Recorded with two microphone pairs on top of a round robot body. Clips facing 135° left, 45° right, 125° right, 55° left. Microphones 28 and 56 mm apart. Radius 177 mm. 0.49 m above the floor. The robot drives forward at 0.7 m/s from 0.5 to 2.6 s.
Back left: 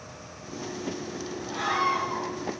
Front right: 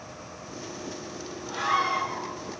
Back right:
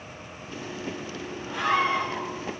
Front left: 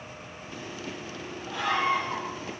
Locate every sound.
1.5 s a scream: 90° right, 4 m; by 2.3 s 100° right, 4.5 m